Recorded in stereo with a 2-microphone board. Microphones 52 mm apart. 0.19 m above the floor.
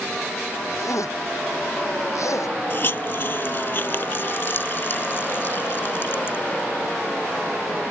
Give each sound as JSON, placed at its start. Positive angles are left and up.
{"t": 0.7, "sound": "a zipper", "side_deg": 85}
{"t": 2.7, "sound": "a hiss", "side_deg": 45}